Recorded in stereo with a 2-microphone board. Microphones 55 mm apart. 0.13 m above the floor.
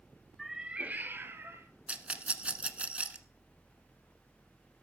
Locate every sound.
0.4 s a cat meowing: centre (ahead or behind), 0.8 m; by 1.7 s 45° right (ahead or behind), 1.7 m
1.9 s a rattle: 20° right (ahead or behind), 1.0 m